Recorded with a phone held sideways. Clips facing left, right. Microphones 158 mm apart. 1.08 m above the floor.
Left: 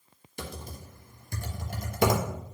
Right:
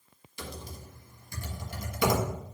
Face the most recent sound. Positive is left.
turn(degrees=50)  # may be behind; listen again after turning